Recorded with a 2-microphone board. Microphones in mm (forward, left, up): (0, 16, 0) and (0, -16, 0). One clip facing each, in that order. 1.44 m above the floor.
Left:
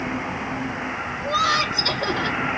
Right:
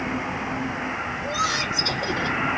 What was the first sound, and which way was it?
Laughter, 40° left (ahead or behind).